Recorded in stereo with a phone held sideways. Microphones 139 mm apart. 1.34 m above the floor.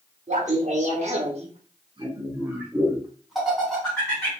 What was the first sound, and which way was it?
Laughter, 55° right (ahead or behind).